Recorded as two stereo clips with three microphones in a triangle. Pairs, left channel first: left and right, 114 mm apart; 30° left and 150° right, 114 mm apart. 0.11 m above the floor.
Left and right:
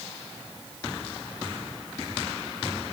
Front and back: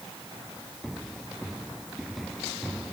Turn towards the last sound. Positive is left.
No sound to turn to.